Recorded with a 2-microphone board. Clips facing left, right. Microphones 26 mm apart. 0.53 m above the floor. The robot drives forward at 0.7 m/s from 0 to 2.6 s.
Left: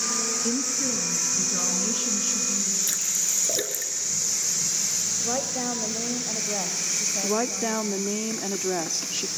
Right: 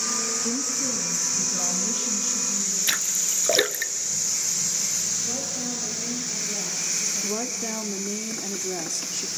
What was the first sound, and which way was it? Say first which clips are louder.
A woman speaking: left 1 dB; 20° left (ahead or behind).